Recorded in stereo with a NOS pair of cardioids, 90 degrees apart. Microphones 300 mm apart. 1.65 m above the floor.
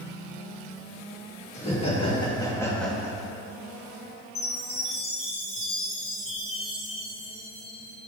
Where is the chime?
20° left, 1.9 m.